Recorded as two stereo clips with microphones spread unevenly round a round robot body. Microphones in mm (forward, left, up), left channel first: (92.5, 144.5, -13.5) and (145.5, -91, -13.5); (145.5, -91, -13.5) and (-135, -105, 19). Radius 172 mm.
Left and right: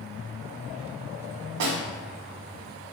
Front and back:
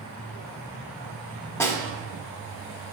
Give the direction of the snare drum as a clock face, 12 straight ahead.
3 o'clock.